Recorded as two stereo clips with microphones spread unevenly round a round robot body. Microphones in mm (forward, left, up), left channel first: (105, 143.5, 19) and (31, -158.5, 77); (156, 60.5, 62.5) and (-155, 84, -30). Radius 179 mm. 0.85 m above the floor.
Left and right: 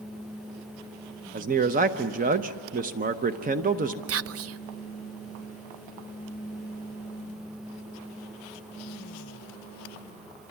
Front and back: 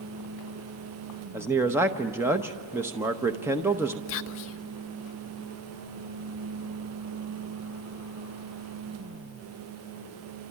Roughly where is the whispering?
Ahead right.